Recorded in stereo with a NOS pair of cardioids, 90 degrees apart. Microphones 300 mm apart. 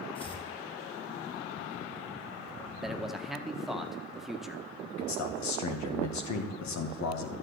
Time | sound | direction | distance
0.1 | chopping | 20° left | 3 m
2.8 | a man speaking | straight ahead | 1.6 m
5.0 | a man speaking | 70° left | 2 m